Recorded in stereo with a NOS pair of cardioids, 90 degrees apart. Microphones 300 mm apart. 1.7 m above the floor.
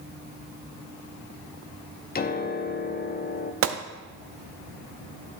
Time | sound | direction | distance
2.1 | a piano | 30° left | 0.8 m
3.6 | a gunshot | 50° right | 0.8 m